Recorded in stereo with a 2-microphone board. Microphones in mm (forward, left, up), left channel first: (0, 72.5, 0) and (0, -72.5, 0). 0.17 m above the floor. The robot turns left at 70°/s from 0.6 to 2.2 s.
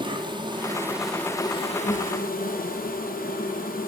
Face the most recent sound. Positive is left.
turn(degrees=100)